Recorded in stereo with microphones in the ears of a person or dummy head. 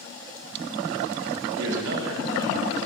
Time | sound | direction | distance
1.6 | a man speaking | 75° right (ahead or behind) | 3 m